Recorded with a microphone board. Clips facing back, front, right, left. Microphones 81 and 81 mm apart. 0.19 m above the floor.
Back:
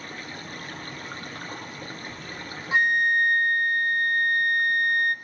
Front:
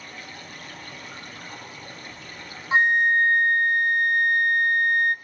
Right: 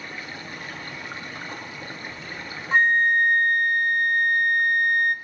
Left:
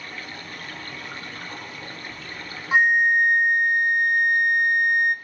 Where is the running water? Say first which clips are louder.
Back 3 dB, right 1 dB; 155° right, 2.5 m.